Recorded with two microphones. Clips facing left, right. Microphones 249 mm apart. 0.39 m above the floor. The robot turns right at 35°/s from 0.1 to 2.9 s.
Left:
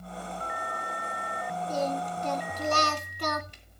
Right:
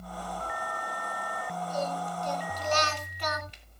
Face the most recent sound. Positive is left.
turn(degrees=130)